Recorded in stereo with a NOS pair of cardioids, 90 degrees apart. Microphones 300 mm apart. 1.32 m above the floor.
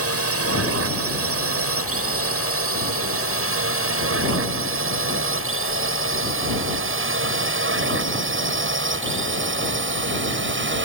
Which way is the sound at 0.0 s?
50° right.